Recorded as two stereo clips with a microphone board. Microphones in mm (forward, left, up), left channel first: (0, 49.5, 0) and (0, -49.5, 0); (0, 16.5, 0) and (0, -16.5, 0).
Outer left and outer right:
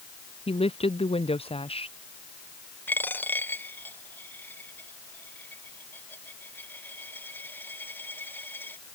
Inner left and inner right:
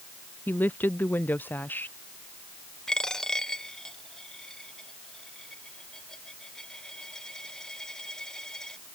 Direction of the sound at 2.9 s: 20° left (ahead or behind).